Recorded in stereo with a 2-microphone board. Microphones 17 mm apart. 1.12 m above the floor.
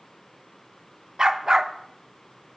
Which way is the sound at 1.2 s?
45° right (ahead or behind).